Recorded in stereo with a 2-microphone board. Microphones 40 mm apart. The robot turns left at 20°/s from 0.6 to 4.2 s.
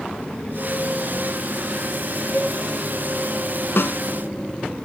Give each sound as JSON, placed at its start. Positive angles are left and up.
{"t": 2.3, "sound": "a cowbell", "side_deg": 35, "distance_m": 1.6}
{"t": 3.8, "sound": "a snare drum", "side_deg": 65, "distance_m": 0.6}